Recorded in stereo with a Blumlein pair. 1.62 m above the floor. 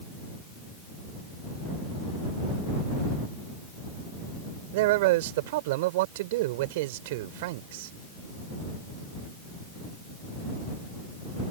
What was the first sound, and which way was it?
A man speaking, 50° right.